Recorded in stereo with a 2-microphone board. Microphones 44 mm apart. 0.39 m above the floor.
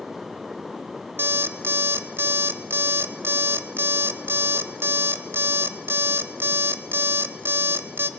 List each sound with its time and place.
1.2 s an alarm clock: 60° right (ahead or behind), 1.2 m